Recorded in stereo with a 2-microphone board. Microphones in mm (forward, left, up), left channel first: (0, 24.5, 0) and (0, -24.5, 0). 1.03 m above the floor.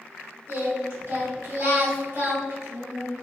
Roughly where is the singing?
Right.